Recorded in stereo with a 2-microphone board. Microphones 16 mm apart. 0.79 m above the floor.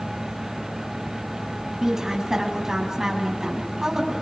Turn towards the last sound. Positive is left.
turn(degrees=-40)  # may be behind; listen again after turning